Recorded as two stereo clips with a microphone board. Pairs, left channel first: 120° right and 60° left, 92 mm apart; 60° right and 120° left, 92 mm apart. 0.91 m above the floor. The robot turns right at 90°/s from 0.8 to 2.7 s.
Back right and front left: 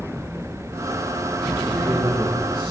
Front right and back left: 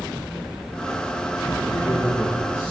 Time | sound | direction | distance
1.7 | a man speaking | 10° right | 2.0 m